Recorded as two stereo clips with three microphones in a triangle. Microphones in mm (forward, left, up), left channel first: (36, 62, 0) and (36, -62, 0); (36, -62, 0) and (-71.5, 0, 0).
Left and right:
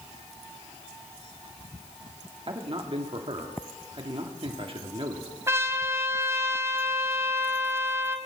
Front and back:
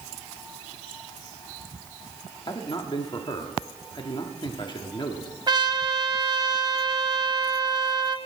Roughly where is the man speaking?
Right.